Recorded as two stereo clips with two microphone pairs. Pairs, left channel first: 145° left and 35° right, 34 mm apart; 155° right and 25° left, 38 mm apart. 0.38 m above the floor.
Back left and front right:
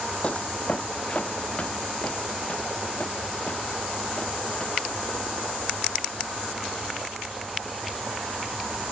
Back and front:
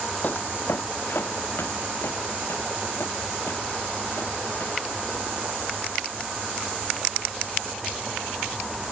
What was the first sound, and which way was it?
Footsteps, 170° right.